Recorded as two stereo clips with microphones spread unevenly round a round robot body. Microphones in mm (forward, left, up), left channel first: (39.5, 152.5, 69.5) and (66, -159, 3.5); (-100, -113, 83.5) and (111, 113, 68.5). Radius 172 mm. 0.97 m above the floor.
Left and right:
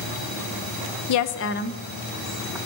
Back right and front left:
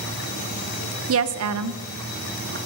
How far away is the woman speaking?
About 0.7 m.